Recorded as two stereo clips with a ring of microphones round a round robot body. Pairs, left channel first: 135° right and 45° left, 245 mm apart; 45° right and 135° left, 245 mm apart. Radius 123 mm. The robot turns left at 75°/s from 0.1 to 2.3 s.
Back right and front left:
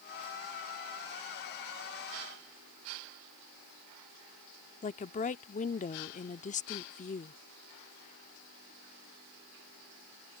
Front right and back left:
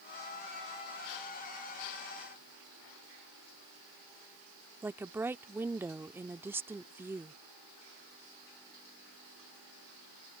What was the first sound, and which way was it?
A woman speaking, 150° right.